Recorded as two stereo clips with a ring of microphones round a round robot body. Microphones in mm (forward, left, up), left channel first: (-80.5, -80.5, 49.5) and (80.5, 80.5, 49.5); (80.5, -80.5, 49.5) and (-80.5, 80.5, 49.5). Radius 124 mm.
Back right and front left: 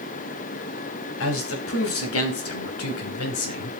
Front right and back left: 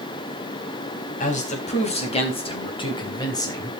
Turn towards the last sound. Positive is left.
turn(degrees=-120)